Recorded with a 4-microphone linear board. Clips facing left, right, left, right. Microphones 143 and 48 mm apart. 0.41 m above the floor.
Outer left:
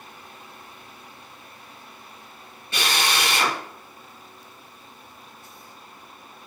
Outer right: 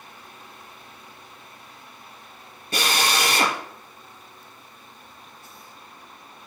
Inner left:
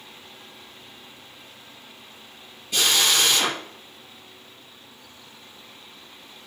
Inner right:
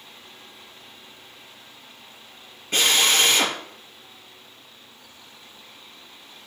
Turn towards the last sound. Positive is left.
turn(degrees=-45)  # may be behind; listen again after turning